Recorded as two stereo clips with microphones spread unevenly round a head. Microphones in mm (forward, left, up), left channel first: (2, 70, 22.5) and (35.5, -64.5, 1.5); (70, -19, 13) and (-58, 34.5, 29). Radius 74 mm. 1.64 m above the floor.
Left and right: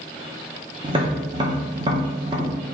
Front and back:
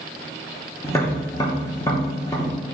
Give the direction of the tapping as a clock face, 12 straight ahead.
3 o'clock.